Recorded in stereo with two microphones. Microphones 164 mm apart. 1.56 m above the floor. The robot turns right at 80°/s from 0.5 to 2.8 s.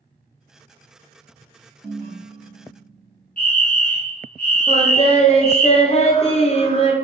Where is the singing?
40° left (ahead or behind), 0.8 m.